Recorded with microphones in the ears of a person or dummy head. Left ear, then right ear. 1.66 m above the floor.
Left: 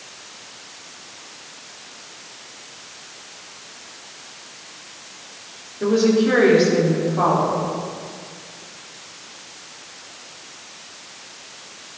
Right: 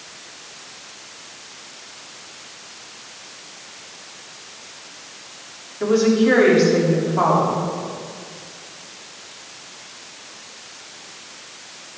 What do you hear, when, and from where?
5.8 s a woman speaking: 55° right (ahead or behind), 3.5 m